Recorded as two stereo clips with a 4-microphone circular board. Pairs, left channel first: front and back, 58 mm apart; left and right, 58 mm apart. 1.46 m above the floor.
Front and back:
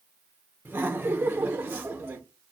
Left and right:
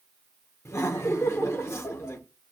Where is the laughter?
125° left, 0.9 m.